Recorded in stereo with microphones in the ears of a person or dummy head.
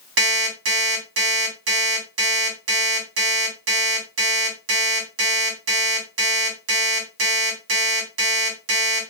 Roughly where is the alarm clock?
Right.